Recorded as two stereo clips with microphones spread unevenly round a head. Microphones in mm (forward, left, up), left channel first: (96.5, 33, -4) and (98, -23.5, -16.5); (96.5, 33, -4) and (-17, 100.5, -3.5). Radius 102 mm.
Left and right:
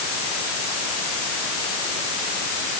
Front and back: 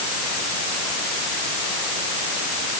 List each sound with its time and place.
Only background noise.